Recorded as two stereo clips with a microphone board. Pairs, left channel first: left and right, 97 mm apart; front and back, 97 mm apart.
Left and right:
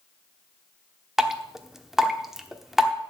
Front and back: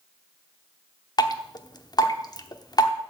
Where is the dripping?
5° right, 0.9 m.